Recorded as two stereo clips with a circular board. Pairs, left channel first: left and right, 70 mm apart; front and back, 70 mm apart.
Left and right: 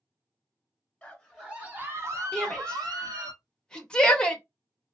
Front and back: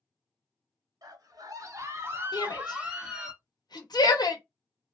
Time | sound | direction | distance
1.0 | a scream | 170° left | 0.9 m
2.3 | a shout | 15° left | 1.1 m